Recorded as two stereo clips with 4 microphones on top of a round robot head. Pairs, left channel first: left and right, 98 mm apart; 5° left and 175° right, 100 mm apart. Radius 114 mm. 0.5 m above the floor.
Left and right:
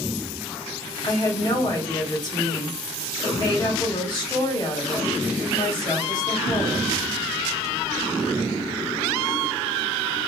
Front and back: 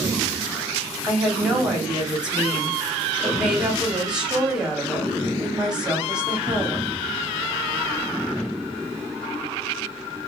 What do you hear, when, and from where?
1.0 s a woman speaking: 105° left, 1.7 m